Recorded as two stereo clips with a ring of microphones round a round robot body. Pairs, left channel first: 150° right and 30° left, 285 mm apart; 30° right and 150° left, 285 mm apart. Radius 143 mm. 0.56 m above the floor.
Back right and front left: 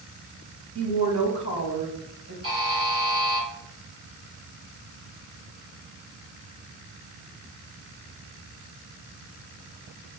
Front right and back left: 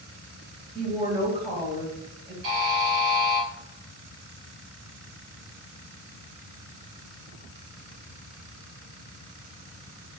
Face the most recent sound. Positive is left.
turn(degrees=105)